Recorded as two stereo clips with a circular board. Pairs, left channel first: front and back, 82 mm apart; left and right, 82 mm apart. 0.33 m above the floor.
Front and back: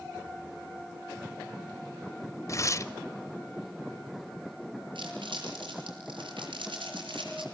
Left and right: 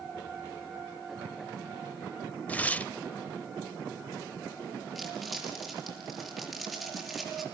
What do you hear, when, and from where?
2.5 s tearing paper: 25° left, 0.8 m
5.0 s crumpling: straight behind, 6.5 m